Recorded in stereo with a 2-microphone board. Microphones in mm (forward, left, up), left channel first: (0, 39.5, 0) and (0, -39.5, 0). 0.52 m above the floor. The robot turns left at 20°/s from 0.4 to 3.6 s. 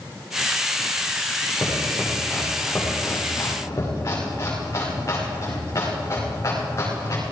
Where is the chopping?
5° left (ahead or behind), 6.5 m; by 7.2 s 45° left (ahead or behind), 6.5 m.